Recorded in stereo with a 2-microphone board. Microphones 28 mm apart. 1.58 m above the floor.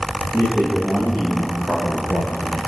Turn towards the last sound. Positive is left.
turn(degrees=55)  # may be behind; listen again after turning